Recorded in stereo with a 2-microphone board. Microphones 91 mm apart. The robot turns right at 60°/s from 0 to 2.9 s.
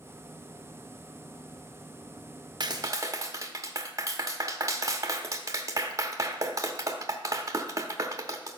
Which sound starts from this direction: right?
A clap, at 2.6 s.